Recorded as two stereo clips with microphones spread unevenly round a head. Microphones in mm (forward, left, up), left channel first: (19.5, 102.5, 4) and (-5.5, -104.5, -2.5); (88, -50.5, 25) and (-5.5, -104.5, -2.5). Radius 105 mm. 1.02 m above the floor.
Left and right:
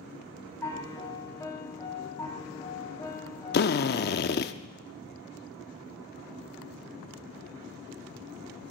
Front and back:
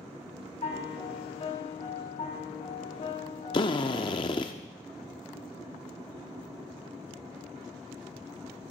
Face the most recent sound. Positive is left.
turn(degrees=55)